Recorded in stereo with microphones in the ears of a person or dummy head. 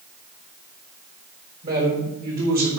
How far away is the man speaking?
About 4 m.